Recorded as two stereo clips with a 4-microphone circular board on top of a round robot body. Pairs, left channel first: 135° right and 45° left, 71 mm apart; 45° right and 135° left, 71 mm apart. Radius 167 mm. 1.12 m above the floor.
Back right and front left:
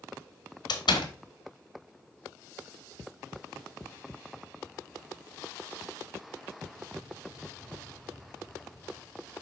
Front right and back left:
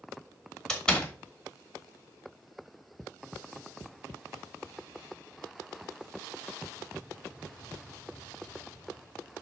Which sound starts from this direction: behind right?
A door slam, at 0.7 s.